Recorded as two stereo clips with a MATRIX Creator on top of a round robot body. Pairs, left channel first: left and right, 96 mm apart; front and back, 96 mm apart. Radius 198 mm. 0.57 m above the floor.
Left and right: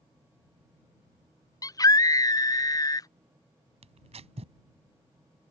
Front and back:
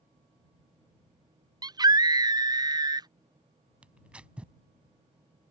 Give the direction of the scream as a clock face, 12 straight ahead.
7 o'clock.